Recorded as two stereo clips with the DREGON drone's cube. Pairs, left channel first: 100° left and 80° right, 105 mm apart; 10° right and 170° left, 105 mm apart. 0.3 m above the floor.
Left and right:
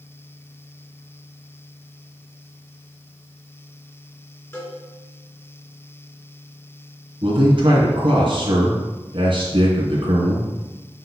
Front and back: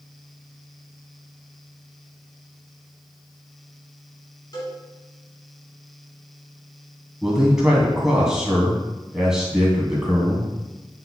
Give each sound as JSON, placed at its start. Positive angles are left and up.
{"t": 4.5, "sound": "a cowbell", "azimuth_deg": 40, "distance_m": 3.0}
{"t": 7.2, "sound": "a man speaking", "azimuth_deg": -105, "distance_m": 2.5}